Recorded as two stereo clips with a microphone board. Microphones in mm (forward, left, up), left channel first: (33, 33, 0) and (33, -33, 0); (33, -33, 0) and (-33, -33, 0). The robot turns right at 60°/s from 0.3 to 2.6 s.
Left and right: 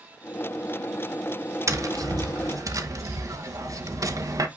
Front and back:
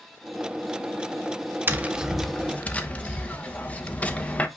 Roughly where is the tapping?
Behind right.